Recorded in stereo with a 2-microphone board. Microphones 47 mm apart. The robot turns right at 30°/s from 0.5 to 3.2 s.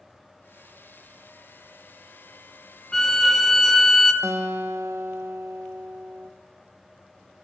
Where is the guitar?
70° right (ahead or behind), 0.7 m.